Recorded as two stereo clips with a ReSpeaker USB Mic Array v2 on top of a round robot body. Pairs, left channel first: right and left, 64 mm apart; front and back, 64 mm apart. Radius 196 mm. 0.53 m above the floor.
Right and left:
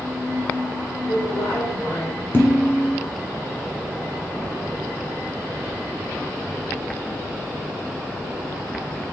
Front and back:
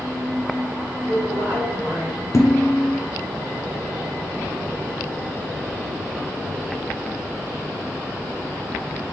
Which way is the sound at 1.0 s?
125° right.